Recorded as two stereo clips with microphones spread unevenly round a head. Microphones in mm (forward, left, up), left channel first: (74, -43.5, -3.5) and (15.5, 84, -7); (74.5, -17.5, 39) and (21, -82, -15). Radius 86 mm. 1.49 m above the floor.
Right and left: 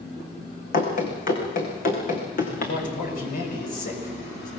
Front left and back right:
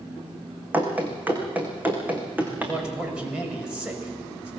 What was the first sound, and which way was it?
Running footsteps, 50° right.